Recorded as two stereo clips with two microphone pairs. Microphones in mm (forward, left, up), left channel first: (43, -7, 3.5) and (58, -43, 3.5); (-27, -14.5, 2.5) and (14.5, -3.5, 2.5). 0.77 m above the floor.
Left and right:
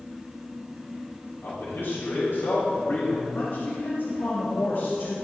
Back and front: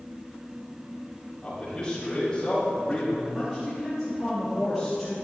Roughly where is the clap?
No clap in this recording.